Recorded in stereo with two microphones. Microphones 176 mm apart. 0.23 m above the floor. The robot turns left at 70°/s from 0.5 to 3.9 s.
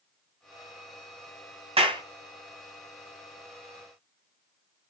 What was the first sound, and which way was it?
A clap, 35° right (ahead or behind).